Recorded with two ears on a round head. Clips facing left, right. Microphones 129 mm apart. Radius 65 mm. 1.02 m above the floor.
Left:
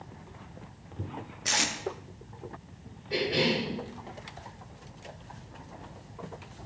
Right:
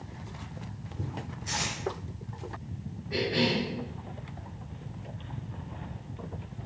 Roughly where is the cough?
Left.